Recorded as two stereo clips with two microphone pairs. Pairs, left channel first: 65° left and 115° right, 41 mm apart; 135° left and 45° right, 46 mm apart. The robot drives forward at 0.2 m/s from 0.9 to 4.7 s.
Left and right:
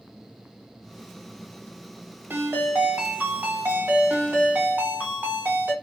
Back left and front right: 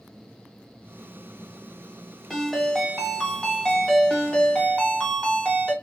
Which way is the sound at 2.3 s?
145° right.